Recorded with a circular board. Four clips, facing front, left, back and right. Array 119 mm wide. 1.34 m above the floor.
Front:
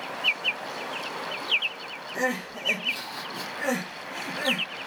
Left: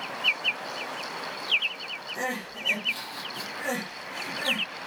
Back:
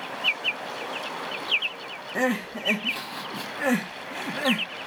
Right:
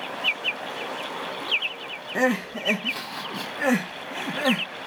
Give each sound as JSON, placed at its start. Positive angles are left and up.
{"t": 2.1, "sound": "crying", "azimuth_deg": -110, "distance_m": 2.0}